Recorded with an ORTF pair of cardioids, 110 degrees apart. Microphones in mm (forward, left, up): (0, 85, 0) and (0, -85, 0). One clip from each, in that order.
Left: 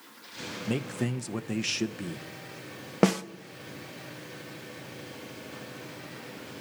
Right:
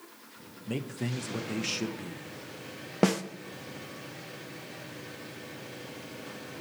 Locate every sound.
0.7 s a man speaking: 25° left, 0.7 m
3.0 s a snare drum: 20° left, 0.6 m